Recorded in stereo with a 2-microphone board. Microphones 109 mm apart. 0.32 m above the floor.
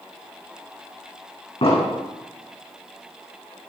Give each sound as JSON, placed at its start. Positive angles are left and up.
{"t": 1.6, "sound": "an explosion", "side_deg": 70, "distance_m": 5.0}